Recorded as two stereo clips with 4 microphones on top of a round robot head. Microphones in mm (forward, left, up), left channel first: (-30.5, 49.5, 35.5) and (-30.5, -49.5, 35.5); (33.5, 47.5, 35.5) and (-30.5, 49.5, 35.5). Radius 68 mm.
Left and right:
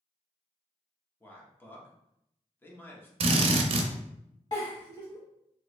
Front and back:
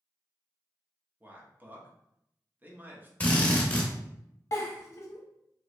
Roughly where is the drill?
Right.